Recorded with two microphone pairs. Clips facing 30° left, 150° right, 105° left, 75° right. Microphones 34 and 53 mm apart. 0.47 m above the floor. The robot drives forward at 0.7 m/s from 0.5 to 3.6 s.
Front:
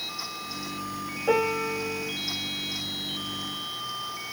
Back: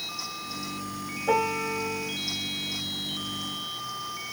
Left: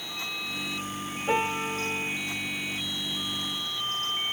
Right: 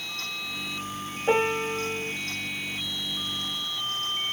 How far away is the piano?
About 3 m.